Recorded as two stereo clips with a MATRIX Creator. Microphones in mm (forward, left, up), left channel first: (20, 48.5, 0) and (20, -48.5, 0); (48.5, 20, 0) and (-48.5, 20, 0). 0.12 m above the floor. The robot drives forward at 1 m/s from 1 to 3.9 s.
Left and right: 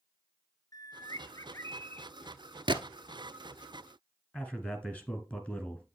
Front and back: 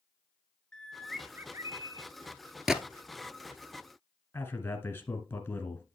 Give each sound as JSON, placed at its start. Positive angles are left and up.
{"t": 0.7, "sound": "a bird", "azimuth_deg": 75, "distance_m": 0.8}
{"t": 2.7, "sound": "a gunshot", "azimuth_deg": -95, "distance_m": 0.8}
{"t": 4.3, "sound": "a man speaking", "azimuth_deg": 30, "distance_m": 1.1}